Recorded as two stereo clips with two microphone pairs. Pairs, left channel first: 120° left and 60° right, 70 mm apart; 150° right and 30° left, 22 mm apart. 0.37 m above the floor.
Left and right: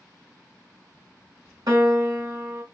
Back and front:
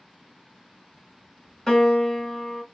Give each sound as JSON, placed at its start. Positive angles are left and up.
{"t": 1.7, "sound": "a piano", "azimuth_deg": -80, "distance_m": 1.7}